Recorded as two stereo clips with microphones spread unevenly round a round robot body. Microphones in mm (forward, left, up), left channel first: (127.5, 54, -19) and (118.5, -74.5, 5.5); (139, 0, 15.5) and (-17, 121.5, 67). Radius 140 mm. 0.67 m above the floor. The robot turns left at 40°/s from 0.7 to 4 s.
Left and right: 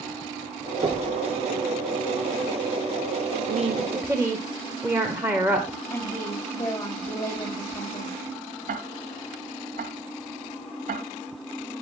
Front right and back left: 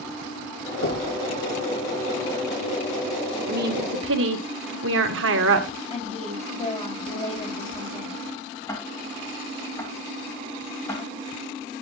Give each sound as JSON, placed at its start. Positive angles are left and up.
{"t": 0.8, "sound": "knocking", "azimuth_deg": -35, "distance_m": 7.5}
{"t": 3.5, "sound": "a woman speaking", "azimuth_deg": -160, "distance_m": 1.7}
{"t": 5.9, "sound": "a woman speaking", "azimuth_deg": 20, "distance_m": 4.0}
{"t": 8.7, "sound": "ticking", "azimuth_deg": -120, "distance_m": 1.4}